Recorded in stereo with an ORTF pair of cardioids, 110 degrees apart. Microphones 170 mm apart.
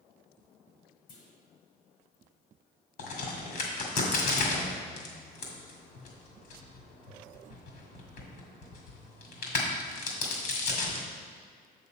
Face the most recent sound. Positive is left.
turn(degrees=65)